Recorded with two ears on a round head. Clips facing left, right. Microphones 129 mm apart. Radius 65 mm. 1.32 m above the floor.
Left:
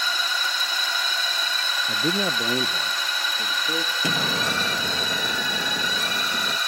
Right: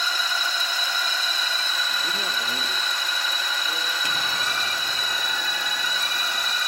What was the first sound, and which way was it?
A man speaking, 45° left (ahead or behind).